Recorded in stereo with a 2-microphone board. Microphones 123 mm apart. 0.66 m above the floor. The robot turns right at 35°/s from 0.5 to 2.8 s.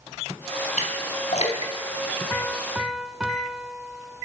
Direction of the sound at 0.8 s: 85° left.